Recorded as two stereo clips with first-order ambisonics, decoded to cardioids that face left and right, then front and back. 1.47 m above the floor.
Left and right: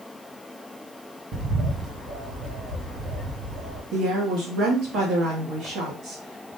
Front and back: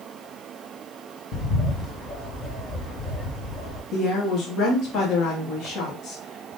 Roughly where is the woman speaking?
Ahead right.